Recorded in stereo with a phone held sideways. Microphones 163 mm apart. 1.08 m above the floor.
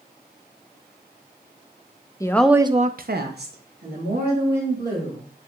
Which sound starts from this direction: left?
A woman speaking, at 2.2 s.